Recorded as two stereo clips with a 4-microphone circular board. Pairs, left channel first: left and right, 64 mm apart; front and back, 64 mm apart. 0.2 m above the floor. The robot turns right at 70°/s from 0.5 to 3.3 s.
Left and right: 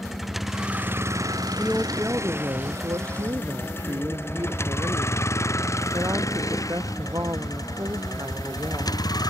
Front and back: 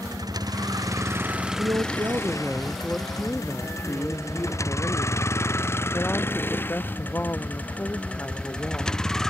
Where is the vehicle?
Straight behind; by 9.3 s 85° left.